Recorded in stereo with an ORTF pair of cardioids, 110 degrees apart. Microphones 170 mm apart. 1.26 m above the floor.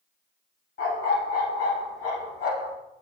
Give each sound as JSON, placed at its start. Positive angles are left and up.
{"t": 0.8, "sound": "a dog barking", "azimuth_deg": 70, "distance_m": 4.5}